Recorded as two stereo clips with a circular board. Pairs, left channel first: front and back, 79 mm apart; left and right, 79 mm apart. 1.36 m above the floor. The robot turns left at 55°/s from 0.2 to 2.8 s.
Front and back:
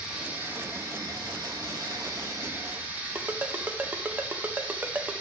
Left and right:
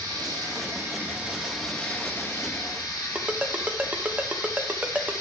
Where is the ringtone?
145° right, 0.6 m.